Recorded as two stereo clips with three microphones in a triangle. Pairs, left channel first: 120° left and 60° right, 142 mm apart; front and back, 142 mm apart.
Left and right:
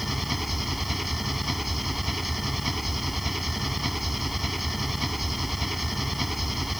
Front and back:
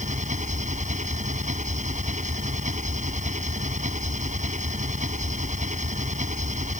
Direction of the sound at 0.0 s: 150° right.